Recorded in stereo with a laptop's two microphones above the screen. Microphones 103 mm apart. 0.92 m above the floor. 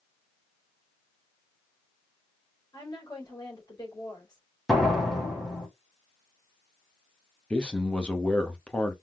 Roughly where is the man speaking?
Centre.